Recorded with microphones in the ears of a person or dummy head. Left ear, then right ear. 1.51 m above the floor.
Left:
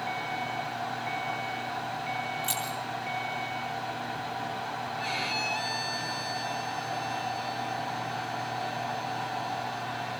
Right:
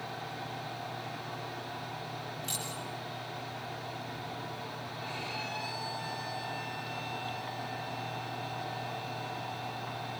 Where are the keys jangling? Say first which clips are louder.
Left 6 dB; 30° left (ahead or behind), 5 m.